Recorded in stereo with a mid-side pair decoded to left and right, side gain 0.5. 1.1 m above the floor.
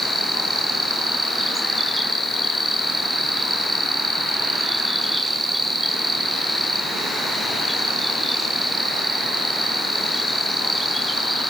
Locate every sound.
0.0 s an insect: 10° right, 4.5 m